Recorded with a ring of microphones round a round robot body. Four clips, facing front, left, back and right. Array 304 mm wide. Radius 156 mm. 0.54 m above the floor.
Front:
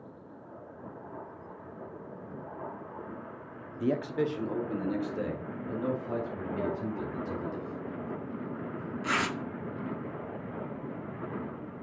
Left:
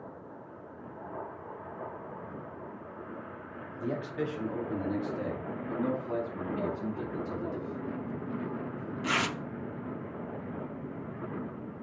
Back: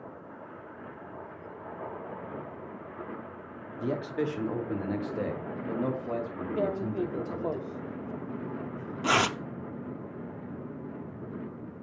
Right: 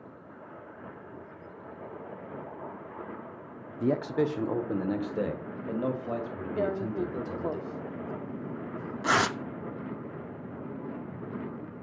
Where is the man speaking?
75° right, 0.9 m; by 7.6 s 120° right, 3.5 m.